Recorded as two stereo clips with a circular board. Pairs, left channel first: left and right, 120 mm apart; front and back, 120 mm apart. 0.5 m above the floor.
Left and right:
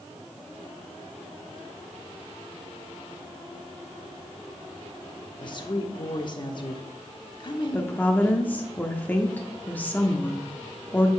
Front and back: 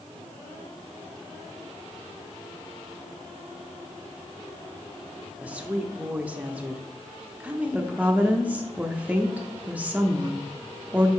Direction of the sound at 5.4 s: 105° left.